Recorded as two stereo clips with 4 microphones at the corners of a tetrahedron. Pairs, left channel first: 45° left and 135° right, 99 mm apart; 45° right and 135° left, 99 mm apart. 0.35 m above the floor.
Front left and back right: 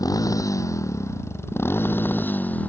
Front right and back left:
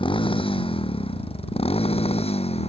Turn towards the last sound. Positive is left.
turn(degrees=-30)